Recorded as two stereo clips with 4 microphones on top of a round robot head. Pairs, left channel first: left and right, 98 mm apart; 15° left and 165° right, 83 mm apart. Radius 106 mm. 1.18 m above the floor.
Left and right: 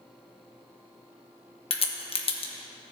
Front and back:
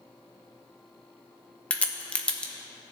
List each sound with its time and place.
1.7 s a crack: 90° left, 1.1 m